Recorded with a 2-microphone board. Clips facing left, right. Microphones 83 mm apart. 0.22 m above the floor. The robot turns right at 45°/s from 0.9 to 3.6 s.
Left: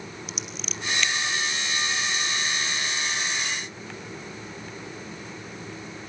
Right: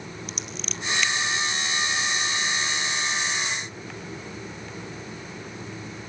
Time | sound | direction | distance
0.3 | scissors | centre (ahead or behind) | 1.2 m